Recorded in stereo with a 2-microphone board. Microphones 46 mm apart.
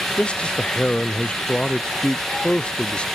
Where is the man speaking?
25° left (ahead or behind).